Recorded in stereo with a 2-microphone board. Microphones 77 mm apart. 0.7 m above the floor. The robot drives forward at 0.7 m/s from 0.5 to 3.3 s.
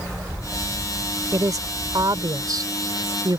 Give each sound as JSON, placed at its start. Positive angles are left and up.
{"t": 1.3, "sound": "a woman speaking", "side_deg": -50}